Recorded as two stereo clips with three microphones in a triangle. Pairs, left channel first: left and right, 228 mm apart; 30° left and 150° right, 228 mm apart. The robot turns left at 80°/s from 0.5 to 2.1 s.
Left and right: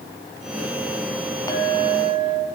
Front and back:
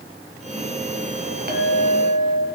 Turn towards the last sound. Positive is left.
turn(degrees=115)